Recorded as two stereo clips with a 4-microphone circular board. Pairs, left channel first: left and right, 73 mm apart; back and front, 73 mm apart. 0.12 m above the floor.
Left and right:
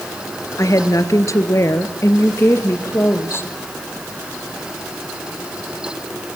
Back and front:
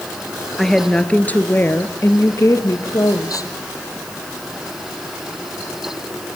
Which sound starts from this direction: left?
A woman speaking, at 0.6 s.